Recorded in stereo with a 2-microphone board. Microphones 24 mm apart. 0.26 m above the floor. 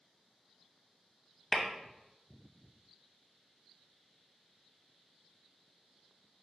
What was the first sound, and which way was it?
Tapping, 20° left (ahead or behind).